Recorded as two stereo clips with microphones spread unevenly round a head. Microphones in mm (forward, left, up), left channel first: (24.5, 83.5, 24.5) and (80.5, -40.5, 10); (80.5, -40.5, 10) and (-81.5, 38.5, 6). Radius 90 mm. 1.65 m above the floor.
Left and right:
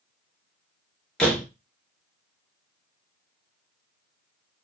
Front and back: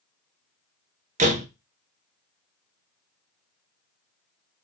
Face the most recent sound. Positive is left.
turn(degrees=-165)